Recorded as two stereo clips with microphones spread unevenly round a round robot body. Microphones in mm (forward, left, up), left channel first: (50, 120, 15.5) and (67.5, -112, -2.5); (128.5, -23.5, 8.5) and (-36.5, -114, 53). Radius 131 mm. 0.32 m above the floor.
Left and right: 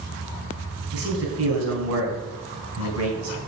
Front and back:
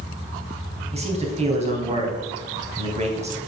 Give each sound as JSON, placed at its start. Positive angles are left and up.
{"t": 0.9, "sound": "a man speaking", "azimuth_deg": -90, "distance_m": 3.0}